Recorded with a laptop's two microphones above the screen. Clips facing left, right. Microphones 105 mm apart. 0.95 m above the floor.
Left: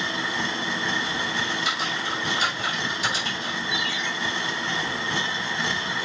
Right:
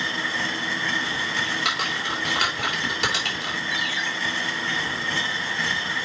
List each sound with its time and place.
0.0 s a machine running: 20° left (ahead or behind), 1.0 m
1.4 s typing on a keyboard: 70° right (ahead or behind), 3 m
3.7 s a ringtone: 50° right (ahead or behind), 2.5 m